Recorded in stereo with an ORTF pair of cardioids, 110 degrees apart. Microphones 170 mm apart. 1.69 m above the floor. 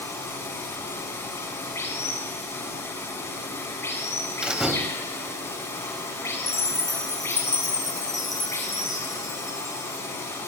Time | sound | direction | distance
0.0 | running water | 15° left | 7 m
4.4 | a door slam | 5° right | 3 m
6.5 | a chime | 20° left | 8 m